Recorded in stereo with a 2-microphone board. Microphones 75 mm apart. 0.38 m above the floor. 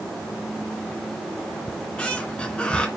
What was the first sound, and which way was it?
A squeak, 10° left (ahead or behind).